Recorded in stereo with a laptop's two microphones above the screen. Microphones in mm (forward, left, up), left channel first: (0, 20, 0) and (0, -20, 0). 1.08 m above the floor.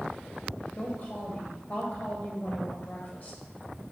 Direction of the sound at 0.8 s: 35° left (ahead or behind).